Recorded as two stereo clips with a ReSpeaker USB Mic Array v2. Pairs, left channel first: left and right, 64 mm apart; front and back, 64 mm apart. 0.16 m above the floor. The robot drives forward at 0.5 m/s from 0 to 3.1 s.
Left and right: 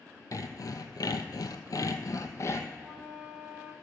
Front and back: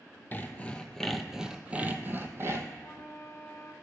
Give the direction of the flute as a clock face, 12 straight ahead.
1 o'clock.